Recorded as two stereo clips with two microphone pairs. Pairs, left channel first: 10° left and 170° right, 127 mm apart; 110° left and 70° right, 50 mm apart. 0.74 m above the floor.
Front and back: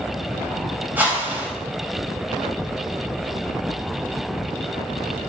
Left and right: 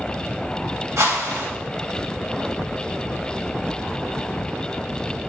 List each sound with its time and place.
1.0 s a whoosh: 90° right, 3 m